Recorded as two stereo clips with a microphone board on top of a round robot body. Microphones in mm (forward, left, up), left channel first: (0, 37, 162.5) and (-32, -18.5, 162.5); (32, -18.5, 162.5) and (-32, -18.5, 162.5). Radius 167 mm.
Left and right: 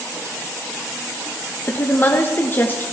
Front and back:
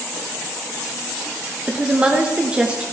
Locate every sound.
1.7 s a woman speaking: 115° left, 1.5 m